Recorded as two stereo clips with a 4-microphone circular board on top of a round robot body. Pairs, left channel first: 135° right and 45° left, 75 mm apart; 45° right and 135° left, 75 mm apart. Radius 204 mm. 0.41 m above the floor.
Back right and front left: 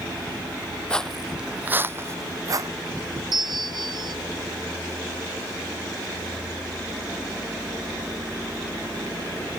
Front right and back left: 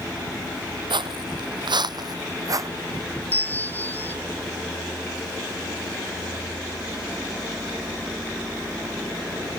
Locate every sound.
0.9 s footsteps: 150° left; by 2.7 s 90° left
3.3 s a bell: 20° left